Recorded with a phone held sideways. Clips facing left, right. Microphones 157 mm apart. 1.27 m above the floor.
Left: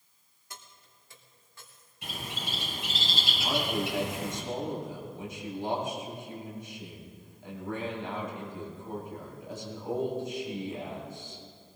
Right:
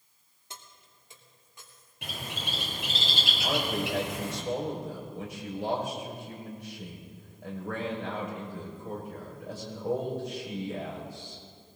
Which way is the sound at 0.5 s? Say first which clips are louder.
Right 1 dB; 25° right (ahead or behind).